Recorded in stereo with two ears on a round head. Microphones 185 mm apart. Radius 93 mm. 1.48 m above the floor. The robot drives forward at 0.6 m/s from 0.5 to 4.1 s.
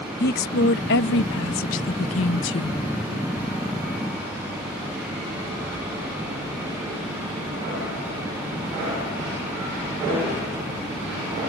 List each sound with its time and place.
0.2 s a woman speaking: 50° left (ahead or behind); by 2.8 s 60° left (ahead or behind)